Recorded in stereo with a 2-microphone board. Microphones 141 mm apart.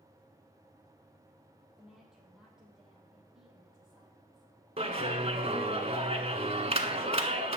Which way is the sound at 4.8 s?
45° right (ahead or behind).